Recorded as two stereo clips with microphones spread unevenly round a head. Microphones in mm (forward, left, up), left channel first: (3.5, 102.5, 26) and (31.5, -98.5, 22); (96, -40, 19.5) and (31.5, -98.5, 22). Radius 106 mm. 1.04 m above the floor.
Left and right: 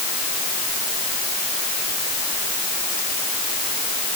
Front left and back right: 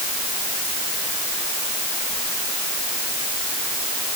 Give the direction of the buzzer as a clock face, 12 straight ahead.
No buzzer in this recording.